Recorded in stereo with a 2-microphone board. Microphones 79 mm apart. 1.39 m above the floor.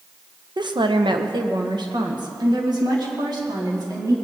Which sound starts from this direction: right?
A woman speaking, at 0.6 s.